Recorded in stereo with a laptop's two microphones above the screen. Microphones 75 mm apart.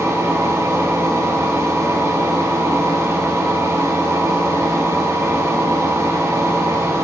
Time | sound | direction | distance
0.0 | a machine running | 35° right (ahead or behind) | 2 m